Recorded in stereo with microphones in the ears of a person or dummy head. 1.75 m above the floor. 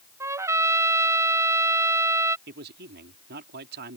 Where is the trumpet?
15° right (ahead or behind).